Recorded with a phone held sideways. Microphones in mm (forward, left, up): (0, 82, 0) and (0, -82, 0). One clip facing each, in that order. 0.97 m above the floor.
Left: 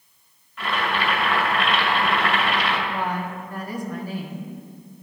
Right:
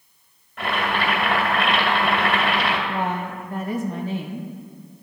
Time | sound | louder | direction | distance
0.6 | boiling | right 1 dB | 55° right (ahead or behind) | 2 m
2.9 | a woman speaking | right 1 dB | 25° right (ahead or behind) | 0.7 m